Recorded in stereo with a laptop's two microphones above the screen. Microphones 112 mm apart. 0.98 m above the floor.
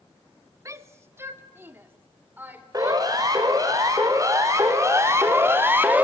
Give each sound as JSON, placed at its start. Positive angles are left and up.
{"t": 0.7, "sound": "a shout", "side_deg": -30, "distance_m": 1.5}
{"t": 2.7, "sound": "a siren", "side_deg": -40, "distance_m": 6.0}